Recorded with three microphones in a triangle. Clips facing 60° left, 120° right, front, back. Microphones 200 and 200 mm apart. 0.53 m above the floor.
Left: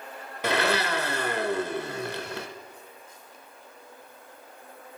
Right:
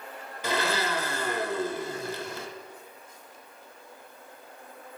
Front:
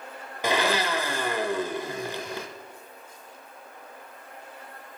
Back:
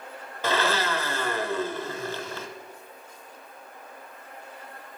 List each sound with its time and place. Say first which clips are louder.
0.4 s a blender: left 3 dB, front 1 dB; 75° left, 0.5 m